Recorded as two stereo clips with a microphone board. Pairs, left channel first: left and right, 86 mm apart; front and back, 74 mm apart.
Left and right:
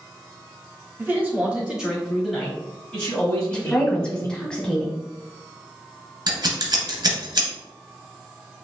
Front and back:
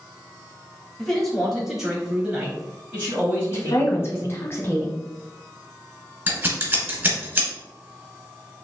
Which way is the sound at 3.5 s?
15° left.